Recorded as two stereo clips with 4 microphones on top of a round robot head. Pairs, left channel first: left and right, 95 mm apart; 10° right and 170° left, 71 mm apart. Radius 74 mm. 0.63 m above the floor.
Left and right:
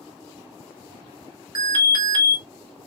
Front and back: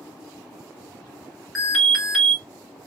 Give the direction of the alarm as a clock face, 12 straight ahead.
3 o'clock.